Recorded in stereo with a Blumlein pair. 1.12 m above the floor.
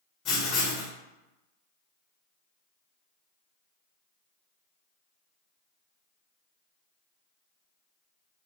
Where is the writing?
30° left, 1.3 m.